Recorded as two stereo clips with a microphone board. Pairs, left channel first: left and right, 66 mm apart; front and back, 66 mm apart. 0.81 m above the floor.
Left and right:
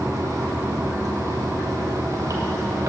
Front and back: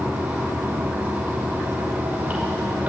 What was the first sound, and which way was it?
Running water, 115° right.